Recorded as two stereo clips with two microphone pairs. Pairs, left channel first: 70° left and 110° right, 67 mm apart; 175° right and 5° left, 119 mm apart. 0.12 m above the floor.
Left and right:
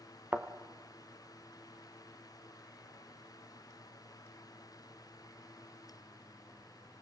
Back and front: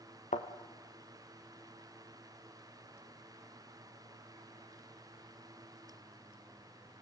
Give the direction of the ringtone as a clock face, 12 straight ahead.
No ringtone in this recording.